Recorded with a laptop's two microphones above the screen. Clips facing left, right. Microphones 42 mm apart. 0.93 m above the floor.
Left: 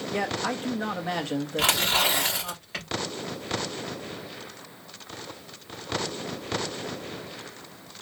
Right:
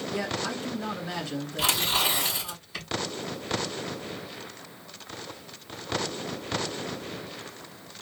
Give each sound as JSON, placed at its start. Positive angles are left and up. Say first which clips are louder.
{"t": 0.1, "sound": "a man speaking", "louder": "left 4 dB", "side_deg": 55, "distance_m": 1.3}
{"t": 1.6, "sound": "tearing paper", "louder": "left 2 dB", "side_deg": 55, "distance_m": 3.5}